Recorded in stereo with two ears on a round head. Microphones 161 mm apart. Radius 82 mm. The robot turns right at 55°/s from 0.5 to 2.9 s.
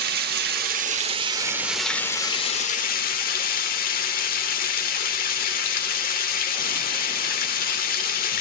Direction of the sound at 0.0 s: 70° right.